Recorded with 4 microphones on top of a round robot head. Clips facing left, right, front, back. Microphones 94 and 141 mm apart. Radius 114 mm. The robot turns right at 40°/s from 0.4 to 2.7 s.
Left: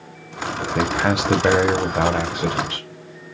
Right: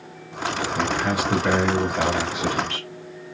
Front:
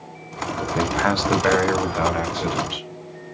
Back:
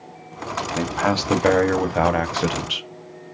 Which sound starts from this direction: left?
A man speaking, at 0.8 s.